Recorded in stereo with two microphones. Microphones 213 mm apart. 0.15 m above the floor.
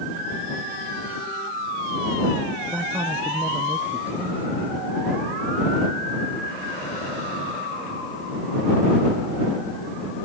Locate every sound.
2.7 s a man speaking: 10° right (ahead or behind)